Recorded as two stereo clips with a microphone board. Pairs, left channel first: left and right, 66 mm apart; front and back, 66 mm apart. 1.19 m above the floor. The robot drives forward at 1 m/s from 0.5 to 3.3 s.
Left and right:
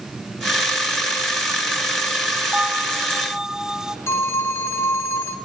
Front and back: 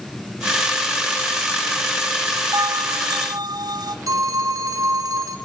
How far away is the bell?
About 0.9 m.